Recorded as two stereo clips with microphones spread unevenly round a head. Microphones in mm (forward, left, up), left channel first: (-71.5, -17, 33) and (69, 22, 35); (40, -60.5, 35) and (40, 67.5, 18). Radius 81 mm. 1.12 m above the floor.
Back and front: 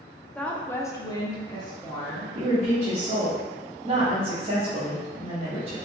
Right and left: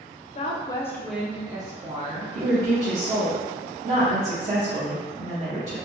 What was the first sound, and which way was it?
A woman speaking, 85° right.